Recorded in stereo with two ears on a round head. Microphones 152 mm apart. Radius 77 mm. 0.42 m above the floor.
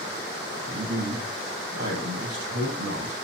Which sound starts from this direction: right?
A man speaking, at 0.7 s.